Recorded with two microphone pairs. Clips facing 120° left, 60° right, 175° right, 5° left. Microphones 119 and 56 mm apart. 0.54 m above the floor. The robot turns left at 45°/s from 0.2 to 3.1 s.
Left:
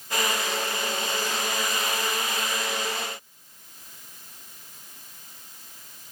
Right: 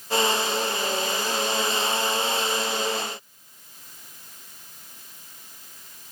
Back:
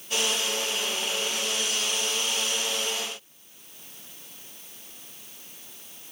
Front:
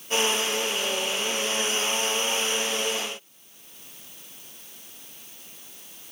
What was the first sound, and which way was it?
Only background noise.